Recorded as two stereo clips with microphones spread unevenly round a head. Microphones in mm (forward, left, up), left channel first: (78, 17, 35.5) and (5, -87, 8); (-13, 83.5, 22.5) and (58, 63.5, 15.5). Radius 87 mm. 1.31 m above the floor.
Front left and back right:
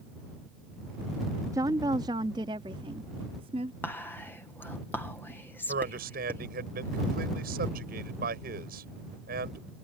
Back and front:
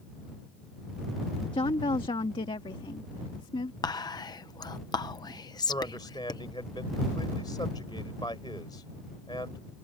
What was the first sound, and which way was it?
A woman speaking, 165° left.